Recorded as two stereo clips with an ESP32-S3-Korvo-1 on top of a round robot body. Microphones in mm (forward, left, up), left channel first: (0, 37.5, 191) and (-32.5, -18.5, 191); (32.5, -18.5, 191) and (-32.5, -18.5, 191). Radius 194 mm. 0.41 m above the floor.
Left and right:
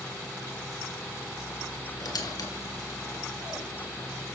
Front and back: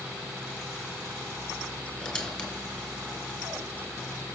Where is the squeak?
75° left, 3 m.